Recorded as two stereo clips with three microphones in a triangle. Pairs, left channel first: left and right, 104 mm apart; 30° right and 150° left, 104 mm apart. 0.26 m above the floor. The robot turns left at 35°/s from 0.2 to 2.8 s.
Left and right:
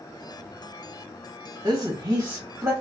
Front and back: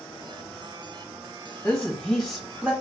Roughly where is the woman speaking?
Behind right.